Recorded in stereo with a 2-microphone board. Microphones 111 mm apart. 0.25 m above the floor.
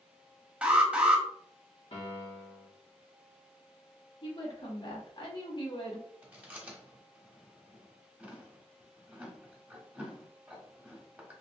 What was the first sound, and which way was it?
An alarm, 10° right (ahead or behind).